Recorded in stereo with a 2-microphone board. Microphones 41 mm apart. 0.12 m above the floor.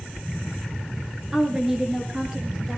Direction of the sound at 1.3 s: 15° right (ahead or behind).